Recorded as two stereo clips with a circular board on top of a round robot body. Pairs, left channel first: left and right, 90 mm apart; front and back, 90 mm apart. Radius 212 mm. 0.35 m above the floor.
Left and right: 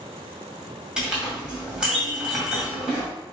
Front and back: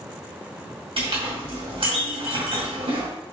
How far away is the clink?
About 2 m.